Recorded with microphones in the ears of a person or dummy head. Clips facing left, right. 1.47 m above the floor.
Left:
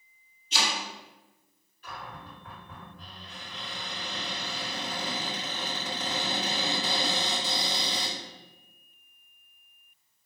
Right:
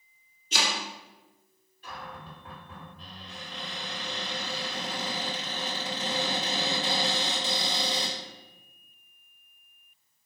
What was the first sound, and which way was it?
Chopping, 40° right (ahead or behind).